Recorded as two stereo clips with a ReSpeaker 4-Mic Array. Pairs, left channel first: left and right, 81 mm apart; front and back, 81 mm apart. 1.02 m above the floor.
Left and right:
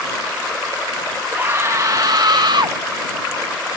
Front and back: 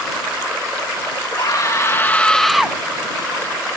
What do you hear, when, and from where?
1.3 s a scream: 25° right; by 2.8 s 100° right